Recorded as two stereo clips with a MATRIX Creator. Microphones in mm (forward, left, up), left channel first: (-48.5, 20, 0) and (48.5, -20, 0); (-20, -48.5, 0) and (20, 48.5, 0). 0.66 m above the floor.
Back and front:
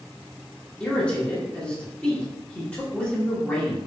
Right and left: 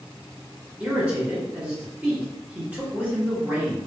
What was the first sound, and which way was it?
A man speaking, 110° left.